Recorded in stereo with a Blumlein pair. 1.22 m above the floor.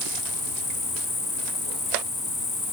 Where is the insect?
5° left, 2 m.